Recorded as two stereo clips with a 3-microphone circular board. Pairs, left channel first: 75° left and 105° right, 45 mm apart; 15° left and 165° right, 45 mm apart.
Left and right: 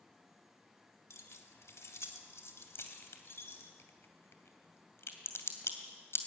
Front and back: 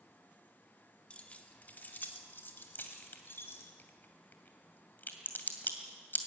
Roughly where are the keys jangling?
Left.